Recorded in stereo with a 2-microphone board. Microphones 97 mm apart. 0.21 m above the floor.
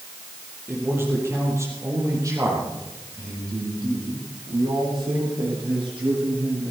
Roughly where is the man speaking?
Right.